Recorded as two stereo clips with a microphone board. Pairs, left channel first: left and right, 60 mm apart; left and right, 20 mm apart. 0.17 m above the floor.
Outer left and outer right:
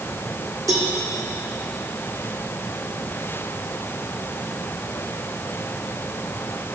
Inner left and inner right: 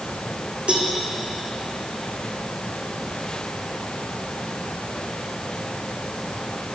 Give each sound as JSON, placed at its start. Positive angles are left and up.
{"t": 0.7, "sound": "a cowbell", "side_deg": -65, "distance_m": 2.0}